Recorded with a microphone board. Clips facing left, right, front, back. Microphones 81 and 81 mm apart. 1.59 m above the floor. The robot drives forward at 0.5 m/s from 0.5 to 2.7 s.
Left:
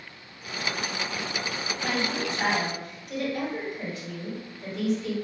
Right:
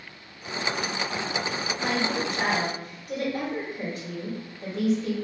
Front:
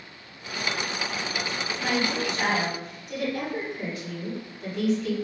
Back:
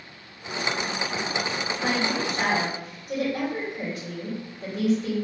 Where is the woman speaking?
125° right, 2.0 m; by 5.2 s 135° right, 2.5 m.